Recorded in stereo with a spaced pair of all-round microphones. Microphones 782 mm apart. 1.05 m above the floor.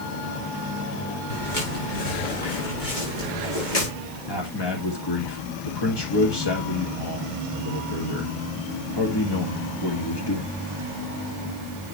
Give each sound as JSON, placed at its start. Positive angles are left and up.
{"t": 1.3, "sound": "footsteps", "side_deg": 75, "distance_m": 6.5}
{"t": 4.3, "sound": "a man speaking", "side_deg": 30, "distance_m": 1.8}